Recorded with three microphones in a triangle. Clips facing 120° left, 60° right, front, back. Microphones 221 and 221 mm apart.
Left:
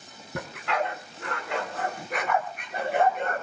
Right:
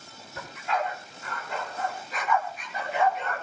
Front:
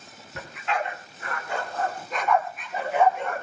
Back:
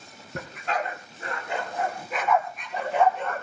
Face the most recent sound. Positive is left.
turn(degrees=75)